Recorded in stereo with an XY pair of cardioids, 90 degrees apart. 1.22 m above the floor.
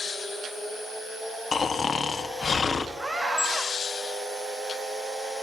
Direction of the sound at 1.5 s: 45° left.